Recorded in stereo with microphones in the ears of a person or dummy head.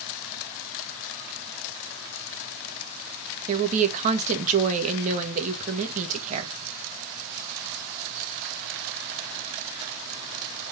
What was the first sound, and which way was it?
A woman speaking, 40° right (ahead or behind).